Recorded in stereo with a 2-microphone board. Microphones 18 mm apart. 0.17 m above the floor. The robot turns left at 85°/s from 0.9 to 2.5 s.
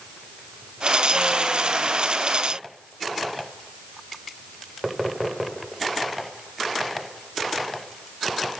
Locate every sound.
Only background noise.